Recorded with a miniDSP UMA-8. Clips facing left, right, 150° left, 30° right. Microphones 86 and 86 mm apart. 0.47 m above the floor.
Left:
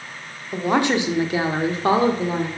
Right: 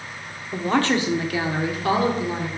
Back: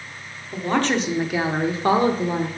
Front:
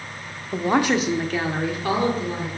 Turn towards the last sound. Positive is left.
turn(degrees=135)